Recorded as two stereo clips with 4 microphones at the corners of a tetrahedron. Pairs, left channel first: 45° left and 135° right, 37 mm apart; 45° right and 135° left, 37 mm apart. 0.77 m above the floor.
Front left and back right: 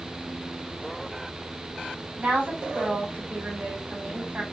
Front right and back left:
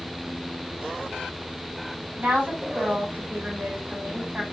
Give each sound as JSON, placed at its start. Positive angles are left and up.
{"t": 2.2, "sound": "a woman speaking", "azimuth_deg": -175, "distance_m": 3.0}